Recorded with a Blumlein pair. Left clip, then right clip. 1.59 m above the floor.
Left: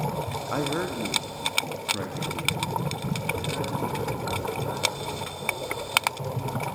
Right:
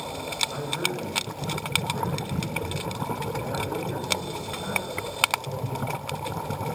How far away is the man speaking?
About 0.8 m.